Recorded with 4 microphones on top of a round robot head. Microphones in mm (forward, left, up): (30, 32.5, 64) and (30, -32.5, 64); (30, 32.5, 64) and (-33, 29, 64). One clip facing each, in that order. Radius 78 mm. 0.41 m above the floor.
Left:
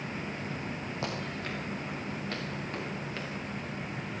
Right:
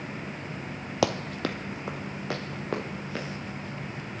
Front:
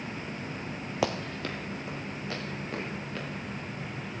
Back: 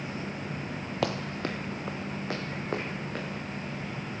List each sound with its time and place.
1.0 s running footsteps: 80° right, 0.6 m; by 3.2 s 120° right, 3 m